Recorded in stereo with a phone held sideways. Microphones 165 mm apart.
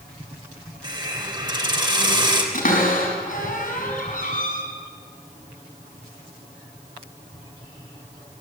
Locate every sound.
0.8 s a hiss: 30° right (ahead or behind), 3 m
2.5 s a cupboard door: 60° left (ahead or behind), 5.5 m